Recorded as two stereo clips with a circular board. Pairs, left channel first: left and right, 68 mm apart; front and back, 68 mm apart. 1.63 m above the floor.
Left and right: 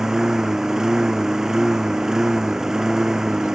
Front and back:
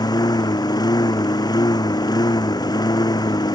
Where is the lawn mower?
5° right.